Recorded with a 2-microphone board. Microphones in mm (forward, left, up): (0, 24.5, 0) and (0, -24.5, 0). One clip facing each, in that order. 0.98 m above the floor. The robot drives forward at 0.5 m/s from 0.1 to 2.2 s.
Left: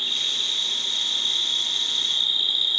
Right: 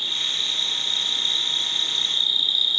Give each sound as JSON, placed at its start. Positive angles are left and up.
{"t": 0.0, "sound": "an insect", "side_deg": 30, "distance_m": 1.4}